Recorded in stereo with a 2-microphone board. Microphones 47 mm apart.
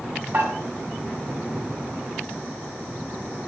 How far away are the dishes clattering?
About 1.5 m.